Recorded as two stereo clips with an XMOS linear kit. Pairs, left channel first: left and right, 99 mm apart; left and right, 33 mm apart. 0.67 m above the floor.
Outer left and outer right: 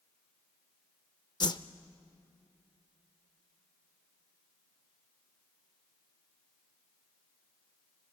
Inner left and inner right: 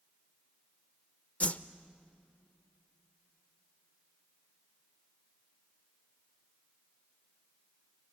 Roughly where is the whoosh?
Left.